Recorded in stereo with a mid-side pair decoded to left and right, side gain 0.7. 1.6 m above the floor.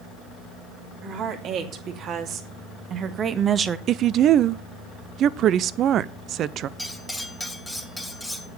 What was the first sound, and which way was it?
A woman speaking, 50° right.